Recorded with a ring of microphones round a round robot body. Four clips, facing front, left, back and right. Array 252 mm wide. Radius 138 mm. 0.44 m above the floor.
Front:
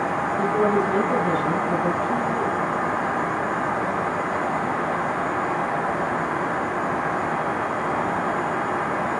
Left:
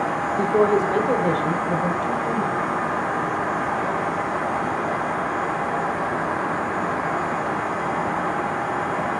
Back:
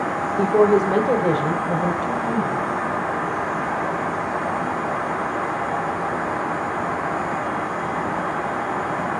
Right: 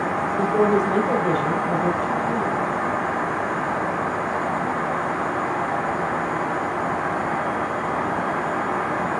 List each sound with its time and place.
0.4 s a woman speaking: 175° left, 1.4 m